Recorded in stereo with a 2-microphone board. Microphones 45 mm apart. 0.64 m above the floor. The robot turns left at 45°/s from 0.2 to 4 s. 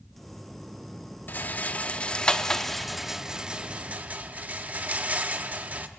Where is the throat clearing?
I don't hear throat clearing.